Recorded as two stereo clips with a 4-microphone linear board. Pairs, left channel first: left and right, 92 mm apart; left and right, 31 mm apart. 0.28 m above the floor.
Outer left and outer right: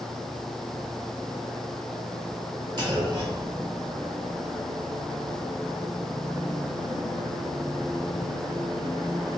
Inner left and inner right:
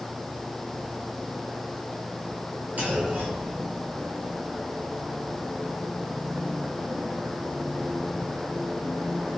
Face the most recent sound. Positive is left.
turn(degrees=-60)  # may be behind; listen again after turning